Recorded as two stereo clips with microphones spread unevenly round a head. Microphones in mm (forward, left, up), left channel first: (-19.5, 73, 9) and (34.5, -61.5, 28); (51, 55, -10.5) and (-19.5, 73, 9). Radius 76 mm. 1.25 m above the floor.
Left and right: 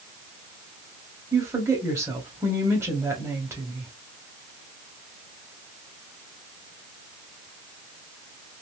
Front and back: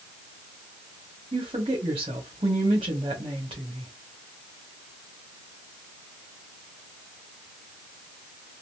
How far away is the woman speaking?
About 1.4 m.